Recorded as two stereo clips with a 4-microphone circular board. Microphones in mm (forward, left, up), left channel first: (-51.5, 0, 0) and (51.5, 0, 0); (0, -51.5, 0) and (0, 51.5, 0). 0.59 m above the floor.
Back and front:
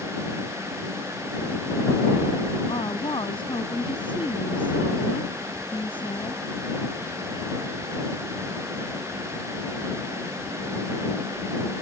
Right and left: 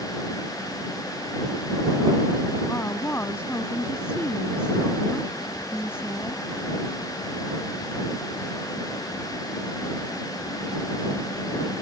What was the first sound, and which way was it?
A woman speaking, 155° right.